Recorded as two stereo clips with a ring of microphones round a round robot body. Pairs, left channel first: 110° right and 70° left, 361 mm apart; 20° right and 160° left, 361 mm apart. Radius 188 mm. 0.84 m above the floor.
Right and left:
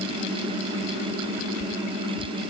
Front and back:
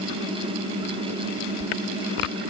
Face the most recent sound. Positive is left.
No sound to turn to.